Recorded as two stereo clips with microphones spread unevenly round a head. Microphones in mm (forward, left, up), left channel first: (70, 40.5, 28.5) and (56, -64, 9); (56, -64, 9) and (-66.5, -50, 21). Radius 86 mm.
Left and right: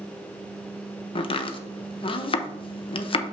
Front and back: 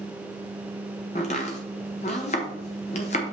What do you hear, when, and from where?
1.1 s chopping: 50° left, 0.7 m